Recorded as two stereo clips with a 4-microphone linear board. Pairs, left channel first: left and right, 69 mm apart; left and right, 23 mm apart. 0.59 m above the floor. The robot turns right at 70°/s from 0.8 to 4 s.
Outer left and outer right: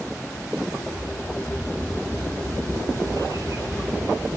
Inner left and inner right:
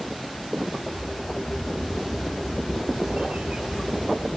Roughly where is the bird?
Behind.